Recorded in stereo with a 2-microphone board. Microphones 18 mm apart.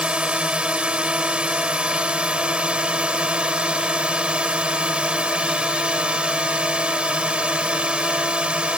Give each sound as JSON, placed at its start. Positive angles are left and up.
{"t": 0.0, "sound": "a drone", "side_deg": -80}